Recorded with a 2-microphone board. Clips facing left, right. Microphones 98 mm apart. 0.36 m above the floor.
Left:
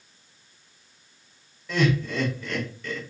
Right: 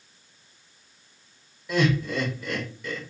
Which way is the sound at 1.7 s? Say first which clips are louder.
Even; 10° right (ahead or behind).